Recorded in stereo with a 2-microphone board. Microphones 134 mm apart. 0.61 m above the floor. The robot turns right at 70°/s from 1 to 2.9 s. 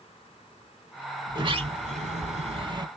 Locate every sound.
1.3 s a sliding door: 150° right, 0.9 m; by 2.9 s 35° right, 0.9 m